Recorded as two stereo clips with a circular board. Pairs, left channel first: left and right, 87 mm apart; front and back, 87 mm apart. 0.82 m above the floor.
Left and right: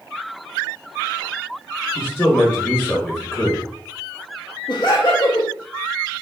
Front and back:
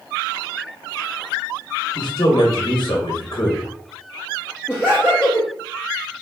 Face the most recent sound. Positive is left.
turn(degrees=100)